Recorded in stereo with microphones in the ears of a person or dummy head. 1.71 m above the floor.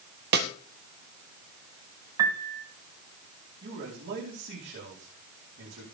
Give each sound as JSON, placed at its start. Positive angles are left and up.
{"t": 0.3, "sound": "a snare drum", "side_deg": -55, "distance_m": 1.9}
{"t": 2.2, "sound": "a piano", "side_deg": -20, "distance_m": 2.0}
{"t": 3.6, "sound": "a man speaking", "side_deg": -55, "distance_m": 5.0}